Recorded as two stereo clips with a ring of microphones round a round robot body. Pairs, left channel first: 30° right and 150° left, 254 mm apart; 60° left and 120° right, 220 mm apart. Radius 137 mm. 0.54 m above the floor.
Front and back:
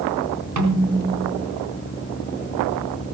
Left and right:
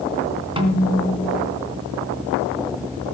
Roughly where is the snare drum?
Behind.